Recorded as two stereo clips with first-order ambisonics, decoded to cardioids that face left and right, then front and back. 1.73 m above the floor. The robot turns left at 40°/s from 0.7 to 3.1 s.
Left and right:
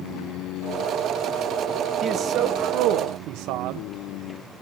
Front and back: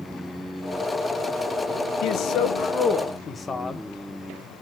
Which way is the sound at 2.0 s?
30° right.